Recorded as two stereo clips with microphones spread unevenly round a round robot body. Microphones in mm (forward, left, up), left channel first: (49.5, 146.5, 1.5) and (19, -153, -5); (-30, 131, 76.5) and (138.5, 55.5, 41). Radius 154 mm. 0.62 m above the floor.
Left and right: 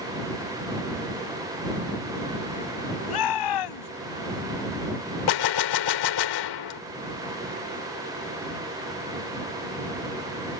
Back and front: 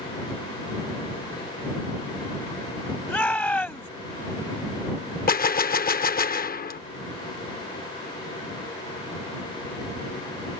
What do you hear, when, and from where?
3.1 s a shout: 75° left
5.3 s a gunshot: 110° left